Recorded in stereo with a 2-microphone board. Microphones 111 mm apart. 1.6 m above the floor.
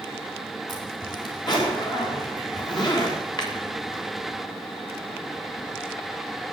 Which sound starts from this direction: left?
A zipper, at 0.7 s.